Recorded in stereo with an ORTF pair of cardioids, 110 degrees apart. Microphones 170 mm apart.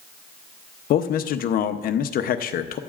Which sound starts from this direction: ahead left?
A man speaking, at 0.9 s.